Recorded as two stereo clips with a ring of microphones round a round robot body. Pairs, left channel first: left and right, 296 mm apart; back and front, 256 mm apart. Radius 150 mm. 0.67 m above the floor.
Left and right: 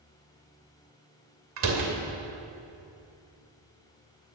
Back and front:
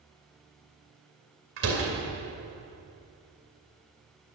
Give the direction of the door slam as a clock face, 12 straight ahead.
2 o'clock.